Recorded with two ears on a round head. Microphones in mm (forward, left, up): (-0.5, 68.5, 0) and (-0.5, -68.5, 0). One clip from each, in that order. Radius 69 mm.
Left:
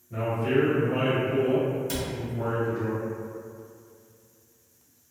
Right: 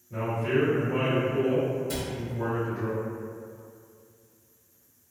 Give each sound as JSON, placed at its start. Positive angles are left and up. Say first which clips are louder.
{"t": 0.1, "sound": "a man speaking", "louder": "left 2 dB", "side_deg": 5, "distance_m": 1.1}
{"t": 1.9, "sound": "a cupboard door", "louder": "left 1 dB", "side_deg": 45, "distance_m": 1.0}